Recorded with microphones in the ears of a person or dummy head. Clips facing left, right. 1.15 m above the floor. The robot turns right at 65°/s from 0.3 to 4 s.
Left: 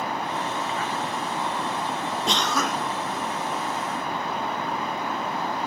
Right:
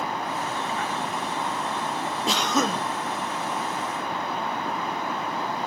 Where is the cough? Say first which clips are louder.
Right 3 dB; straight behind, 0.5 m; by 2.9 s 145° right, 0.5 m.